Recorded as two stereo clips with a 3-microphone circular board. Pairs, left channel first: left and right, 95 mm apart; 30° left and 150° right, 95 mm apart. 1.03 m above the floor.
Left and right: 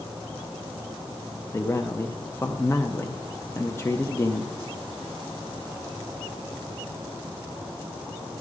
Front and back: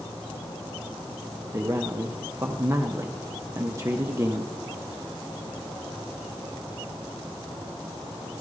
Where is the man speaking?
155° left, 0.6 m.